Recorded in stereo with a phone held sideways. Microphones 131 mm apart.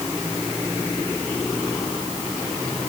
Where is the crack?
I don't hear a crack.